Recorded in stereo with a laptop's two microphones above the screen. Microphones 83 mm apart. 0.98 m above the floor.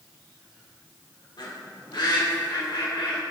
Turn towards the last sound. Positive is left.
turn(degrees=70)  # may be behind; listen again after turning